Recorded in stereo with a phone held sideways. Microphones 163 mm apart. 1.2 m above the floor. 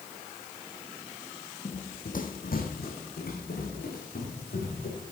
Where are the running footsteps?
40° left (ahead or behind), 1.6 m; by 5.1 s 80° left, 6.5 m.